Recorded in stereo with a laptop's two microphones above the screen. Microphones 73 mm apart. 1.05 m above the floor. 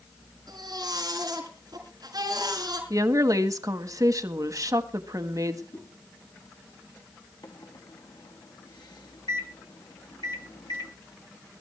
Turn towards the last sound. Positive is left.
turn(degrees=70)  # may be behind; listen again after turning